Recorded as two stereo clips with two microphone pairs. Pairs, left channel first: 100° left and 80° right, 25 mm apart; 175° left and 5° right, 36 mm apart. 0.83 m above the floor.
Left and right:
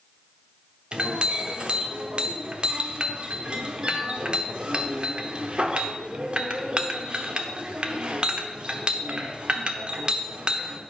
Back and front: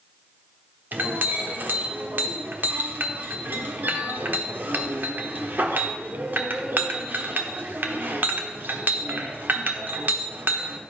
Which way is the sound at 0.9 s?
30° right.